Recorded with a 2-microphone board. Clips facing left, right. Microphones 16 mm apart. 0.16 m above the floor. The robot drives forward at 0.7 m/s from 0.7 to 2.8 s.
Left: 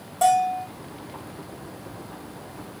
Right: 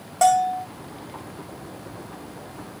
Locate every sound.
0.2 s a bell: 50° right (ahead or behind), 2.5 m